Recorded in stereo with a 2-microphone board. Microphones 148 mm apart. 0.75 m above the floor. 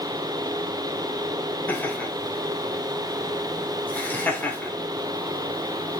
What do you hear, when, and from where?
1.7 s laughter: 10° left (ahead or behind), 3 m